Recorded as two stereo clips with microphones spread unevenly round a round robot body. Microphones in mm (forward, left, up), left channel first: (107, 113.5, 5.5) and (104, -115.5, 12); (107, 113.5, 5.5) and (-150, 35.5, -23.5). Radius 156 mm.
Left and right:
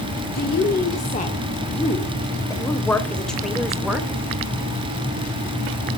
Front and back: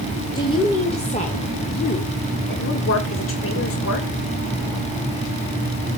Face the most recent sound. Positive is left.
turn(degrees=-5)